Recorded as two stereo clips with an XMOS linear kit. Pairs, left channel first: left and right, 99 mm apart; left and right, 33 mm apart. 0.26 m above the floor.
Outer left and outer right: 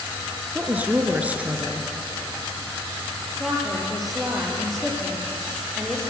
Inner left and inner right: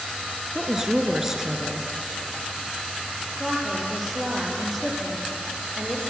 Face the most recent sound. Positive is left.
turn(degrees=0)  # may be behind; listen again after turning